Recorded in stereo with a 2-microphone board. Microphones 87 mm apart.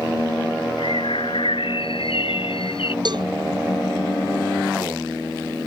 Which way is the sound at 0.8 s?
80° left.